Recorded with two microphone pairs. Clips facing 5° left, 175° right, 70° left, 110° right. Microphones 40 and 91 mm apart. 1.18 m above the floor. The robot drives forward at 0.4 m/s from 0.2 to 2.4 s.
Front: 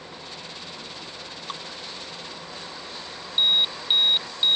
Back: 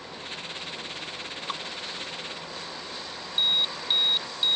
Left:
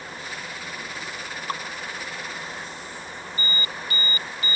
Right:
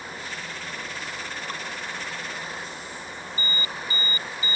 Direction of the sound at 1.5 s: 105° left.